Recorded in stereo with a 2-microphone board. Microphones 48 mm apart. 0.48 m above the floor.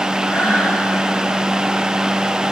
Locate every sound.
0.3 s breathing: 60° left (ahead or behind), 6 m